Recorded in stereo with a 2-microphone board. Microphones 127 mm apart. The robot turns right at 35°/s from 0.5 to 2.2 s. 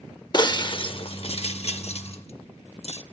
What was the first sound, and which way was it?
Breaking glass, 35° left (ahead or behind).